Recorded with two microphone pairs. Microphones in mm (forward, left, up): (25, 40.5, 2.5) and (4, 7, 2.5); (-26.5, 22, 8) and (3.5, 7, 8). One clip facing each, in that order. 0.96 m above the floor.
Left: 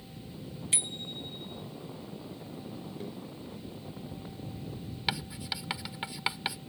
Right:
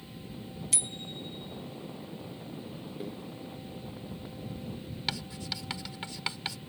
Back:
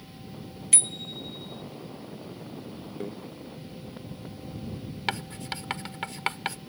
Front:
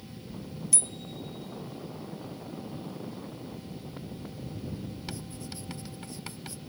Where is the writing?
135° left.